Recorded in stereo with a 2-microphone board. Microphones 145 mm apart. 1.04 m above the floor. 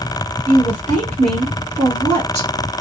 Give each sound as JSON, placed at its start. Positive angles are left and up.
{"t": 0.5, "sound": "a woman speaking", "side_deg": 15, "distance_m": 1.1}